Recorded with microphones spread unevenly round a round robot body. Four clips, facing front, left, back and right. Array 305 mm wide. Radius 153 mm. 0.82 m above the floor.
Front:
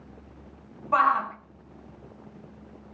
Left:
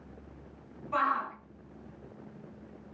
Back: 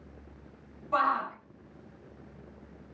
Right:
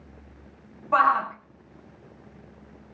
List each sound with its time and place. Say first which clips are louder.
0.9 s a shout: right 9 dB, front 5 dB; 55° right, 7 m